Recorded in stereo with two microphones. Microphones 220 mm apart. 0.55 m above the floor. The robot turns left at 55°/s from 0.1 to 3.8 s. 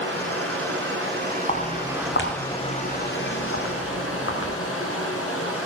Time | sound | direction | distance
0.0 | running water | 65° right | 2.5 m
1.5 | footsteps | 30° left (ahead or behind) | 2 m